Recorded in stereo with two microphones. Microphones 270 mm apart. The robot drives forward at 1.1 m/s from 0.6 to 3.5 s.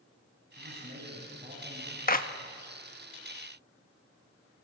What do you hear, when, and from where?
0.6 s a man speaking: 35° right (ahead or behind), 6.5 m; by 2.0 s 30° right (ahead or behind), 7.5 m
2.1 s a clap: 35° left (ahead or behind), 1.0 m; by 2.3 s 30° left (ahead or behind), 1.1 m